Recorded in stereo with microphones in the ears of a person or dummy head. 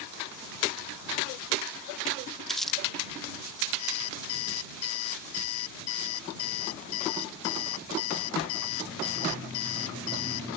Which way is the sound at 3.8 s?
75° left (ahead or behind).